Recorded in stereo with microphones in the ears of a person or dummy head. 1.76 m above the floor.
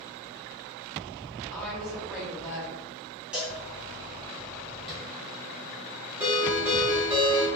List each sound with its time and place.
1.5 s a woman speaking: centre (ahead or behind), 1.1 m
3.3 s a cowbell: 5° right (ahead or behind), 0.9 m
4.9 s tapping: centre (ahead or behind), 0.6 m
6.2 s a ringtone: 10° right (ahead or behind), 1.8 m